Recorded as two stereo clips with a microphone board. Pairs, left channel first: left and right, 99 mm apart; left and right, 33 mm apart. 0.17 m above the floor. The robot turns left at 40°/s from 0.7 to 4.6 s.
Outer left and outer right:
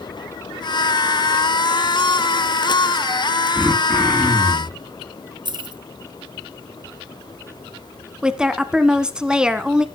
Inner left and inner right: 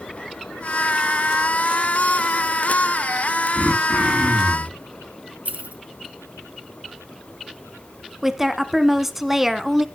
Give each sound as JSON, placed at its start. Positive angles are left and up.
{"t": 3.5, "sound": "throat clearing", "azimuth_deg": -155, "distance_m": 10.0}
{"t": 5.5, "sound": "keys jangling", "side_deg": -55, "distance_m": 1.5}
{"t": 8.2, "sound": "a woman speaking", "side_deg": -10, "distance_m": 1.2}